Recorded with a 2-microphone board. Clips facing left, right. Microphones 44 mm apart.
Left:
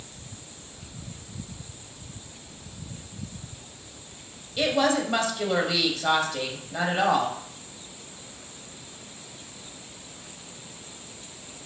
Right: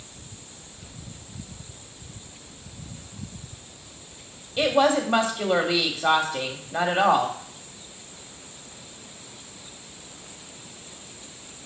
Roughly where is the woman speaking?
Right.